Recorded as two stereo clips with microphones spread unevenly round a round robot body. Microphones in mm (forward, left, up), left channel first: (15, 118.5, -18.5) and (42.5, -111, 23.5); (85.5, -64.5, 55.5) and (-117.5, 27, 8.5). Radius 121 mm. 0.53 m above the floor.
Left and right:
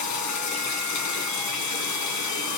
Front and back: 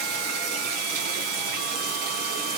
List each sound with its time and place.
0.0 s running water: 105° left, 3 m